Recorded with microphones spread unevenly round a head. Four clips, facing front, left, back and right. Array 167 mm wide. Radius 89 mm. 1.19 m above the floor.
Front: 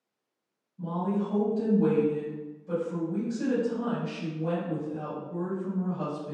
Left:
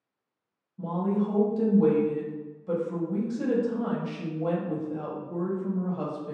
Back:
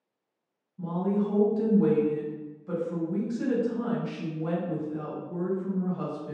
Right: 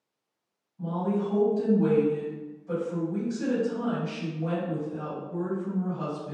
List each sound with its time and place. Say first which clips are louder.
0.8 s a woman speaking: left 1 dB, back 2 dB; 105° left, 0.9 m